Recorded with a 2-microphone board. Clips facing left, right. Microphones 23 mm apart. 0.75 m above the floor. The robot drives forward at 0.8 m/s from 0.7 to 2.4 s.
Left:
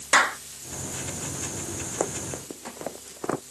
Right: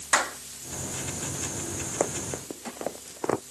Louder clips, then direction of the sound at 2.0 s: Right 1 dB; 15° right (ahead or behind).